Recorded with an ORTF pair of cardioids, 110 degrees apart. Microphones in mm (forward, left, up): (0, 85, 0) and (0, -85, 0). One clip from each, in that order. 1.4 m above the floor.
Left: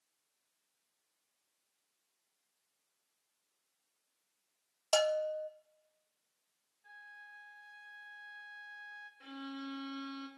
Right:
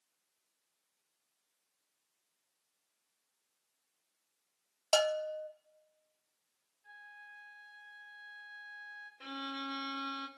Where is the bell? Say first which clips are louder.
Even; 10° right, 0.6 m.